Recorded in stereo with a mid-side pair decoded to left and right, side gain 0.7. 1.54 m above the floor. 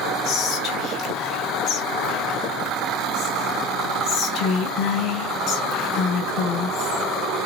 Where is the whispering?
50° left, 1.6 m.